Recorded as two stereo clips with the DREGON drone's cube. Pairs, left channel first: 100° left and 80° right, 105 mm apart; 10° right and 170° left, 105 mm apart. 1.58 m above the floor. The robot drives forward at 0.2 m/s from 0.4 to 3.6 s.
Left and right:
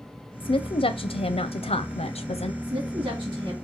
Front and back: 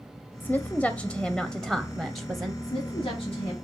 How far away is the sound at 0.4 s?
About 0.6 m.